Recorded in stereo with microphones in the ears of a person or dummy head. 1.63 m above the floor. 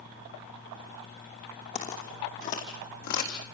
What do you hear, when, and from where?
1.8 s footsteps: 30° left (ahead or behind), 3.5 m; by 3.3 s 45° left (ahead or behind), 4 m